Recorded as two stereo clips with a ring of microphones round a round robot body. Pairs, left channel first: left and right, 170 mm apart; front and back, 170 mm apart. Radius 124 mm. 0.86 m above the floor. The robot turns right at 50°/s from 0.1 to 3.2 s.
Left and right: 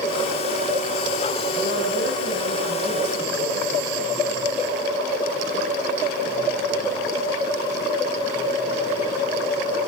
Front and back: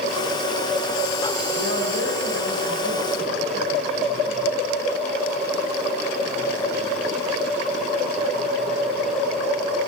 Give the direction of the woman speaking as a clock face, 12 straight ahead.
6 o'clock.